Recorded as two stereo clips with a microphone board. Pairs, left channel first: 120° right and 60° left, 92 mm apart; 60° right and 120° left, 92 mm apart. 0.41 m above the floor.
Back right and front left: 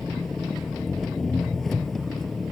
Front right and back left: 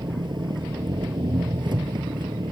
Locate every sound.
0.0 s an engine running: 155° left